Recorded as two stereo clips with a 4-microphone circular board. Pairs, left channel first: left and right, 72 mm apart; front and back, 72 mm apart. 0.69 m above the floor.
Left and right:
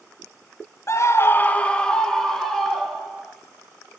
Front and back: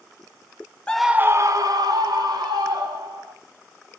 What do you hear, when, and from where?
0.9 s a scream: 70° left, 0.7 m; by 3.3 s straight behind, 3.5 m